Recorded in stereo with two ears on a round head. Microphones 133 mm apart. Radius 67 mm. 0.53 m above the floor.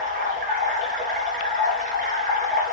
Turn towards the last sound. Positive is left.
turn(degrees=-60)  # may be behind; listen again after turning